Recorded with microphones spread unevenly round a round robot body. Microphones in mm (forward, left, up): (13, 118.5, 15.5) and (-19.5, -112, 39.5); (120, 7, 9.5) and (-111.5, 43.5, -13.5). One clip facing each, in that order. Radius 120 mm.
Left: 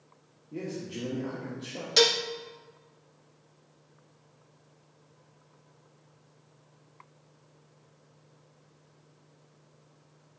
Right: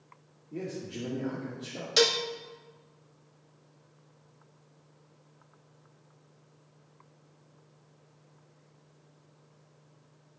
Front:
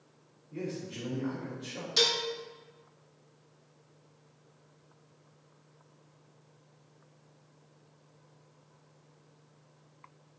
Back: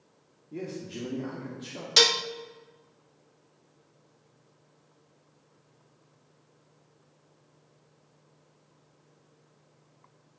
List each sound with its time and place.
0.5 s a man speaking: 175° left, 2 m
2.0 s dishes clattering: 170° left, 0.5 m